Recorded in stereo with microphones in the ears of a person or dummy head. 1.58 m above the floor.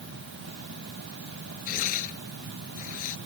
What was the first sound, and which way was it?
Tearing paper, 50° left (ahead or behind).